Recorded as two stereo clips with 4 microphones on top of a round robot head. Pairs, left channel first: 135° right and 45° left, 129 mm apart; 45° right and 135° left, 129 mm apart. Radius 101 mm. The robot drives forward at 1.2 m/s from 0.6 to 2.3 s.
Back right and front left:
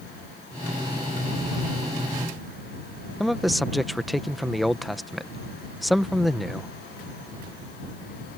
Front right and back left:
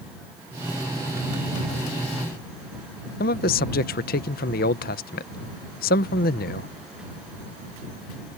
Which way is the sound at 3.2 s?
45° right.